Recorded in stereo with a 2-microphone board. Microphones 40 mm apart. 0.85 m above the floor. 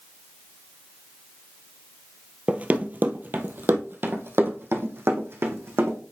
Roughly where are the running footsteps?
Right.